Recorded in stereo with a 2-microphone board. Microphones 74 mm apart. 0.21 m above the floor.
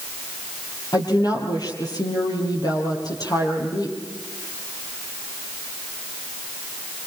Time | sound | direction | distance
0.9 | a woman speaking | 65° left (ahead or behind) | 6.5 m